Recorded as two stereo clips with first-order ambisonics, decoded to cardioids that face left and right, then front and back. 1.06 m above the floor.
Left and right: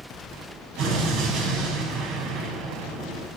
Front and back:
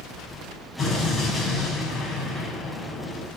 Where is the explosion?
85° right, 4 m.